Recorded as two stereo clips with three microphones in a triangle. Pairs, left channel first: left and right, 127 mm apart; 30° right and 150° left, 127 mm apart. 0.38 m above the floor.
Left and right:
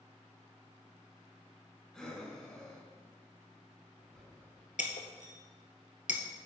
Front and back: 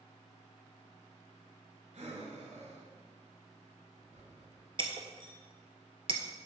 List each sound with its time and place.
1.9 s breathing: 175° left, 1.4 m
4.8 s breaking glass: 105° left, 1.0 m